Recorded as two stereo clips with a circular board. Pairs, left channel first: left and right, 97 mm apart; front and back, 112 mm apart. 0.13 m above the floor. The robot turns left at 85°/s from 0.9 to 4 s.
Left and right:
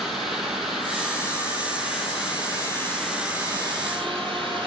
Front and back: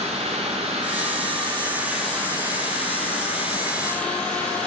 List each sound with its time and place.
0.0 s running water: 175° right, 0.7 m; by 4.7 s 80° right, 0.7 m